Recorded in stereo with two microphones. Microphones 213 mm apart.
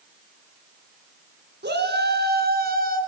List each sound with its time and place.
1.6 s a shout: 55° right (ahead or behind), 2.5 m; by 3.0 s 45° right (ahead or behind), 3 m